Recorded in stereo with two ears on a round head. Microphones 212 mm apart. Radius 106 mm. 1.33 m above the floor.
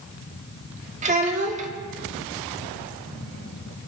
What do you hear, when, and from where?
1.0 s a child speaking: 30° right (ahead or behind), 1.5 m